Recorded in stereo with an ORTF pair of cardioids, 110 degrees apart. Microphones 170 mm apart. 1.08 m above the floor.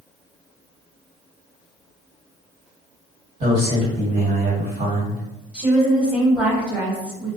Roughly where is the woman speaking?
Ahead.